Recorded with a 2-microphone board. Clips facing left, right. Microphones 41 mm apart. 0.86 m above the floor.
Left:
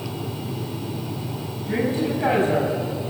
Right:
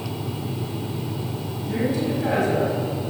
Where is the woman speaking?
45° left (ahead or behind), 5.5 m; by 2.7 s 40° left (ahead or behind), 5 m.